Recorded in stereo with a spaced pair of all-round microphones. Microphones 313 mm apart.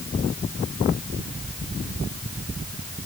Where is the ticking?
I don't hear ticking.